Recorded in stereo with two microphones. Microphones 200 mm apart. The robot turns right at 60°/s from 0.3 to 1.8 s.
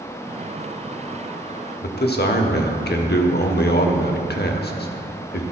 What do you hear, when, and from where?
1.8 s a man speaking: 60° left (ahead or behind), 0.9 m